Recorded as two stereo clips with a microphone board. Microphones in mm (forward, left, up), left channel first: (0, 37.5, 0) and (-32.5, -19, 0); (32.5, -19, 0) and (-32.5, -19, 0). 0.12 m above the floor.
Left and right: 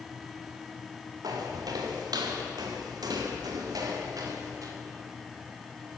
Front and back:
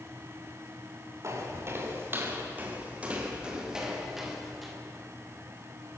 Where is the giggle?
No giggle in this recording.